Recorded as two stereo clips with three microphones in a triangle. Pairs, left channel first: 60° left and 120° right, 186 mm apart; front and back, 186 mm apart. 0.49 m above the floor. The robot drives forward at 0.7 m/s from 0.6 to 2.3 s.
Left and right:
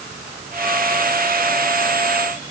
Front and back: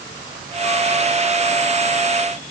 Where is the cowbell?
No cowbell in this recording.